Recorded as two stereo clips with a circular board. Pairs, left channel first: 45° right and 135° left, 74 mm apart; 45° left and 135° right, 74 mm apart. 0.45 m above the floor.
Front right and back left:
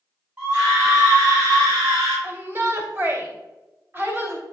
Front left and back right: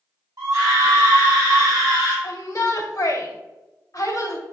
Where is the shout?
80° left, 2.5 m.